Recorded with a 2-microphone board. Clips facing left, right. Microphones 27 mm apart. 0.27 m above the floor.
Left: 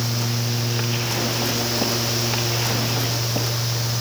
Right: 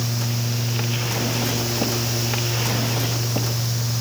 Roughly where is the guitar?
I don't hear a guitar.